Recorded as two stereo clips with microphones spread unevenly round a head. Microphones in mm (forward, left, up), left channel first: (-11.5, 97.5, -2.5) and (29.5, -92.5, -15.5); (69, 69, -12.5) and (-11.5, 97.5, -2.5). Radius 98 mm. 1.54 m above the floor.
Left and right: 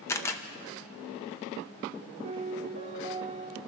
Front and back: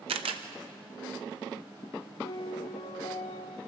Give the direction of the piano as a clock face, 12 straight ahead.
1 o'clock.